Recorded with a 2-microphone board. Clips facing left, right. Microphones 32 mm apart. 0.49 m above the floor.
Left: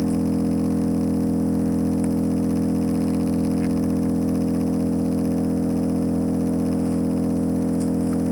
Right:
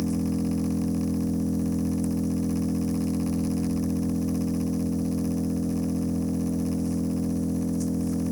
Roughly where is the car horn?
No car horn in this recording.